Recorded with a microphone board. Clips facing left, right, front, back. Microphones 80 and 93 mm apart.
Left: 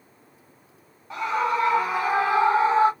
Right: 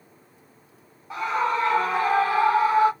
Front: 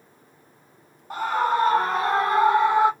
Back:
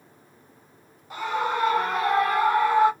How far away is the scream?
About 1.4 m.